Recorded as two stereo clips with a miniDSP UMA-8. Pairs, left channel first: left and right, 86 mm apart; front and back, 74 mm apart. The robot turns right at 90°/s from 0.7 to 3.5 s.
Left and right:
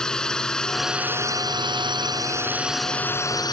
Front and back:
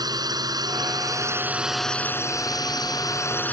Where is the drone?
170° left; by 3.5 s 65° left.